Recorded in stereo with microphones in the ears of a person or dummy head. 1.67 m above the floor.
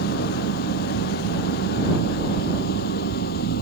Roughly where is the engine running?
Left.